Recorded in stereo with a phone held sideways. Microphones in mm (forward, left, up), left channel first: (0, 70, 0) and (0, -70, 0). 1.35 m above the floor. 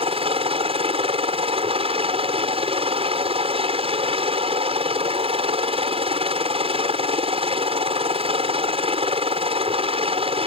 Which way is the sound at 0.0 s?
45° right (ahead or behind).